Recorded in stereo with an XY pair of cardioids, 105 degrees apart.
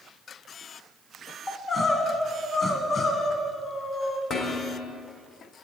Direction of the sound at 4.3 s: 65° left.